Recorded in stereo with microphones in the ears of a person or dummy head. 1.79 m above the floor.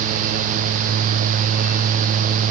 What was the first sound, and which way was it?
Only background noise.